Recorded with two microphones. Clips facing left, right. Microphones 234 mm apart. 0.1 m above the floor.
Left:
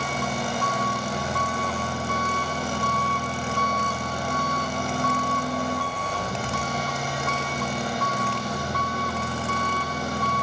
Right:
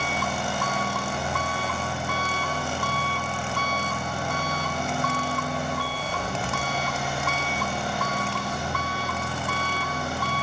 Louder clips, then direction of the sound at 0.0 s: Left 1 dB; 40° left (ahead or behind).